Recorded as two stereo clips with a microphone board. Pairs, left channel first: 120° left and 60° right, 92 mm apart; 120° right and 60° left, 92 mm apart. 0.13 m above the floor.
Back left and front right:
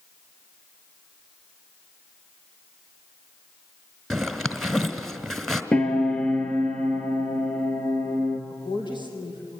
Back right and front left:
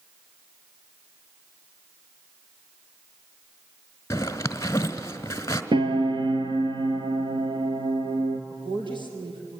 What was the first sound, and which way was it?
A zipper, 150° right.